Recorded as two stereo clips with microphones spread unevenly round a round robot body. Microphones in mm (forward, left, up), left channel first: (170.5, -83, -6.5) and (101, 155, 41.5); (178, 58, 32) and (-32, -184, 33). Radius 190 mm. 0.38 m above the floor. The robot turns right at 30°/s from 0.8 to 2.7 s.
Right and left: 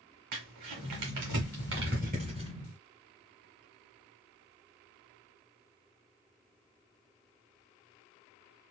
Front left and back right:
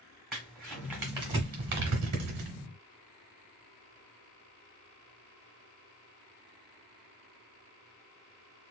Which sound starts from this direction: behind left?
Crumpling, at 0.3 s.